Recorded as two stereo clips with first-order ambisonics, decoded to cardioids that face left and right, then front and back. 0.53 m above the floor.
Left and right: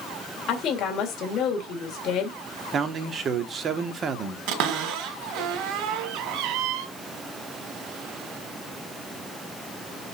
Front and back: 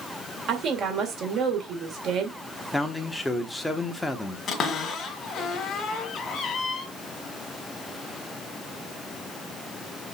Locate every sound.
0.5 s a woman speaking: 135° left, 2 m
2.7 s a man speaking: 75° right, 1.0 m
4.5 s a cupboard door: 65° right, 1.7 m